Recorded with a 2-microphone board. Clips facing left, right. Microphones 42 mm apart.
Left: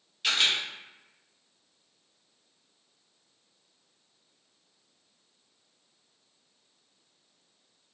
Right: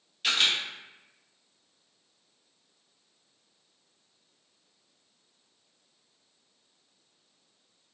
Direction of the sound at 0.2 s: Centre (ahead or behind).